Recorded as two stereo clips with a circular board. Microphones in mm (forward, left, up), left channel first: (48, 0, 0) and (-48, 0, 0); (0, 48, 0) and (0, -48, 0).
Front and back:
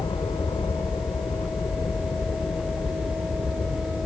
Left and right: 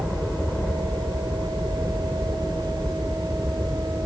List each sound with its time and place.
0.0 s a helicopter: 10° left